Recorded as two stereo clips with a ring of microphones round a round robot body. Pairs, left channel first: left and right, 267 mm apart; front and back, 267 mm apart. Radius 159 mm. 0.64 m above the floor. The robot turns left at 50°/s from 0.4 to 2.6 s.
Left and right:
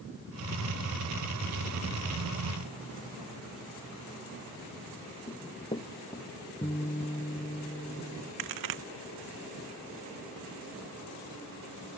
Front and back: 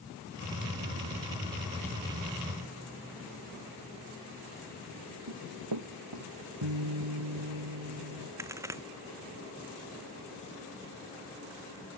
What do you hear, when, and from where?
5.3 s running footsteps: 165° left
6.6 s a guitar: 170° left
8.4 s a crack: 100° right